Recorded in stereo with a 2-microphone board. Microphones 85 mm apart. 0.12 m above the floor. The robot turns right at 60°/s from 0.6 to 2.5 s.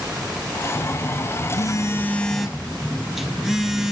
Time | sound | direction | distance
0.8 | a phone buzzing | 80° left | 0.8 m